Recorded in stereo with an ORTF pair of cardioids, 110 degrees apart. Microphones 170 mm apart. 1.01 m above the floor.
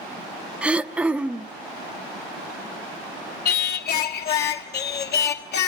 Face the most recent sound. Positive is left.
turn(degrees=65)